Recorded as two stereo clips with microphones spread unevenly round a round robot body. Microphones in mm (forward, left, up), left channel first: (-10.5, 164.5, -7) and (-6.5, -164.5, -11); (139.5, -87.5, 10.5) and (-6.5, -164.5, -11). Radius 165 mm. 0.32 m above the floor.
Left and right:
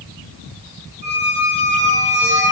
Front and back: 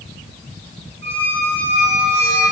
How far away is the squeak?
About 3 m.